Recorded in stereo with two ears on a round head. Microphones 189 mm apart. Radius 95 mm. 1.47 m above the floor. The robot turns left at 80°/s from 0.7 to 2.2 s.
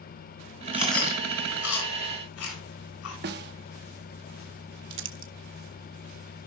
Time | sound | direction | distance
0.7 | chewing | 10° right (ahead or behind) | 5 m
3.2 | a snare drum | 50° right (ahead or behind) | 1.0 m
4.9 | crumpling | 60° right (ahead or behind) | 1.0 m